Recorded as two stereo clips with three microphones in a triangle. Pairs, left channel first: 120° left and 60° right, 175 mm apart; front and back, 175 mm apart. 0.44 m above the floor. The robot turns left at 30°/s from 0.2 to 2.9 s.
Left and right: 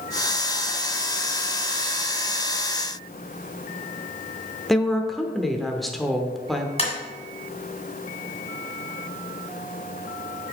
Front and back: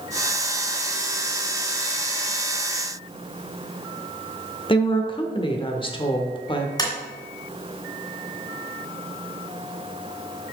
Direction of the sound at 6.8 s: 65° left.